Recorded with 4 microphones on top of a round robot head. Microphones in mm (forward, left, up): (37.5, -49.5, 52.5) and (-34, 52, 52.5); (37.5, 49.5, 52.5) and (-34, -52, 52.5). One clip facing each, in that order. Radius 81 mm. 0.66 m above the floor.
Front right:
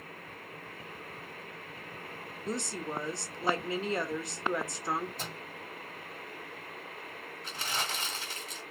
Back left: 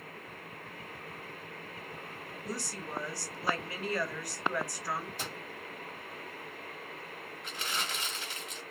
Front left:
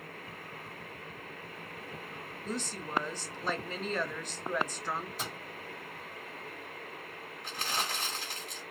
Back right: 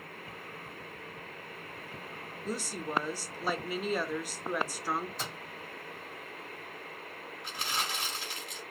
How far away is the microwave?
About 2.0 m.